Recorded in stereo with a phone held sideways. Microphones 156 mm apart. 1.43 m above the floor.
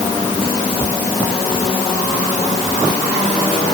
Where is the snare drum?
No snare drum in this recording.